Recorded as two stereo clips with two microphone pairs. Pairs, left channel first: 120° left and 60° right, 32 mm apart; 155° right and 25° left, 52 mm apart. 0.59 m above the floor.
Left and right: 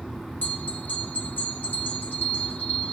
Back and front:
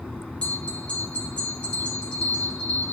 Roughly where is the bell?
Behind left.